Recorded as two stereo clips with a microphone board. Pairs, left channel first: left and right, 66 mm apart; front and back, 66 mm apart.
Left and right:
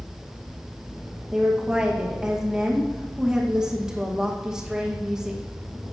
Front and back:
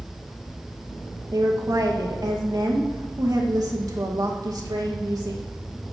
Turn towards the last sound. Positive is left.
turn(degrees=-170)